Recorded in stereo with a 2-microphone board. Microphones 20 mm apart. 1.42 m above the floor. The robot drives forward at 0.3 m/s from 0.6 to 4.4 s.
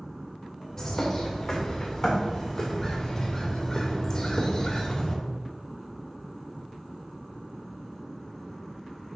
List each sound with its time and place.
0.8 s a bird: 20° left (ahead or behind), 3 m; by 5.2 s 30° left (ahead or behind), 1.9 m